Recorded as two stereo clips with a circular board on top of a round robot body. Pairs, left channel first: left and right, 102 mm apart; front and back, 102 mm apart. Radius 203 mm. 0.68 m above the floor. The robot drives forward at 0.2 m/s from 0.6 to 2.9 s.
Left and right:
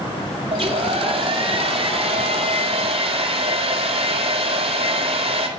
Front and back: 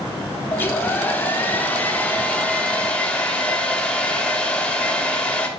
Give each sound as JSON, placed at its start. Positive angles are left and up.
{"t": 0.5, "sound": "a hair dryer", "azimuth_deg": -70, "distance_m": 3.0}